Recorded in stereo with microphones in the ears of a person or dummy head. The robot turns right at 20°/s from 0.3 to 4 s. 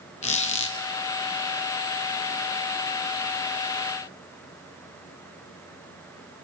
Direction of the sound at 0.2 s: 35° left (ahead or behind).